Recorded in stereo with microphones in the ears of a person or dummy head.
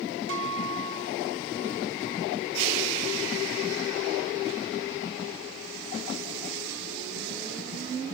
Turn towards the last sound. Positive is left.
turn(degrees=-75)  # may be behind; listen again after turning